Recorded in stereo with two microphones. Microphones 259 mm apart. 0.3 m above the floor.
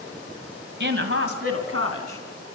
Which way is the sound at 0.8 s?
45° right (ahead or behind).